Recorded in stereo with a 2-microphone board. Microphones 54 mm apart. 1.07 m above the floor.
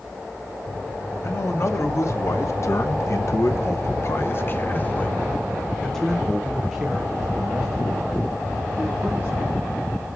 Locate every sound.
1.2 s a man speaking: 50° left (ahead or behind), 2.0 m; by 9.3 s 20° right (ahead or behind), 2.5 m